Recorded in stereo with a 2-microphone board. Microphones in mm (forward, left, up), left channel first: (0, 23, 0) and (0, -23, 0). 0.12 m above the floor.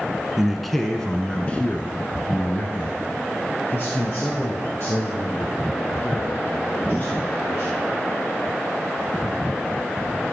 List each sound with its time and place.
0.4 s a man speaking: 5° right (ahead or behind), 1.1 m; by 7.9 s 55° left (ahead or behind), 4.5 m